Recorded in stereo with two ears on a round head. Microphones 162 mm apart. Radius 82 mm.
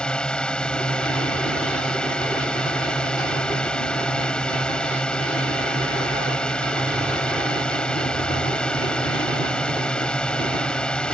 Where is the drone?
5° left (ahead or behind).